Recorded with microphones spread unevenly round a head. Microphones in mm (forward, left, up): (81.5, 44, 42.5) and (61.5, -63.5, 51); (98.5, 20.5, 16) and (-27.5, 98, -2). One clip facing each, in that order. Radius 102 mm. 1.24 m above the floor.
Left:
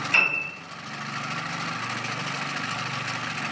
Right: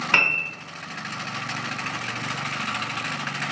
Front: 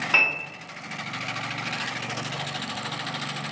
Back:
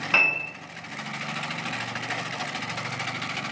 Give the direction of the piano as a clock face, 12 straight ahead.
4 o'clock.